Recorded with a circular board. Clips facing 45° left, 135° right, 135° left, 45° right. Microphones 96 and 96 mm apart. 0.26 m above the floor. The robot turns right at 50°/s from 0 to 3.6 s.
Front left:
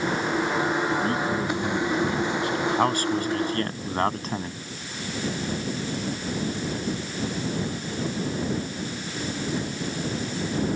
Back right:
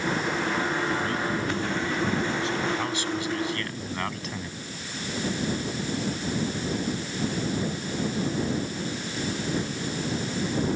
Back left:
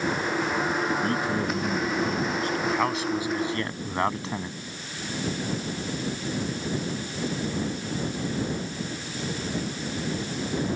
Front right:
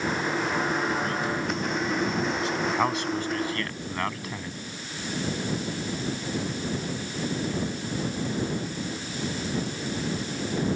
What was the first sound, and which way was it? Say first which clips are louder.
A man speaking: front left 3 dB, back left 2 dB; 90° left.